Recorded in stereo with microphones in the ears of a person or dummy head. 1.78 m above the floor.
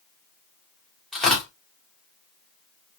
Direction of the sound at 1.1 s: Centre (ahead or behind).